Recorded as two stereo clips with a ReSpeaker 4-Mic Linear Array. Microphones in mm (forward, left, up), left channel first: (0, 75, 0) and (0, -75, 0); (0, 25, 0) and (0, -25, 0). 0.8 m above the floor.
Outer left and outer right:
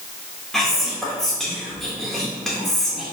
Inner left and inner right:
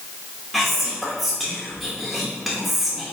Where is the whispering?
Centre (ahead or behind), 0.9 m.